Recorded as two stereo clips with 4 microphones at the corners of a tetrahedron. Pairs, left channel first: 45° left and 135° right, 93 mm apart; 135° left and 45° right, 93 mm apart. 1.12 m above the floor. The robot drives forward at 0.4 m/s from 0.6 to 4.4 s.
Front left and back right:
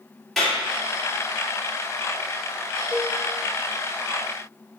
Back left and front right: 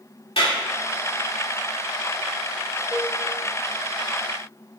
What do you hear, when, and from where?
0.4 s a clap: 130° left, 2.5 m
2.9 s a cowbell: 100° left, 1.6 m; by 3.1 s 105° left, 1.6 m